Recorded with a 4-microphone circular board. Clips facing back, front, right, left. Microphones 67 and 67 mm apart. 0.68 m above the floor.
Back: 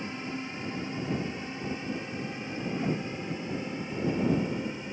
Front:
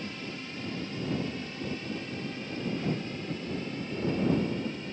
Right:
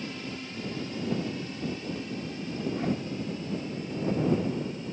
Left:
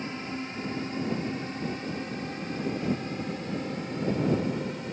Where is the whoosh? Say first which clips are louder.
Back 2 dB, right 1 dB; 120° right.